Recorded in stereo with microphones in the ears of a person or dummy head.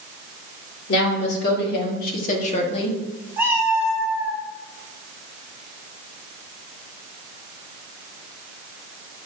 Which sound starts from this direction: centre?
A cat meowing, at 3.4 s.